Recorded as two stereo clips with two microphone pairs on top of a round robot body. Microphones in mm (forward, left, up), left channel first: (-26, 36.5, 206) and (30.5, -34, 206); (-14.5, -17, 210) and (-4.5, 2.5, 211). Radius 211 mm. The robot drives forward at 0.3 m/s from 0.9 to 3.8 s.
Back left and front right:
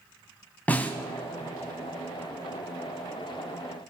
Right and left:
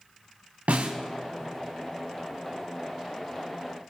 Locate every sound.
0.7 s a snare drum: 55° left, 0.6 m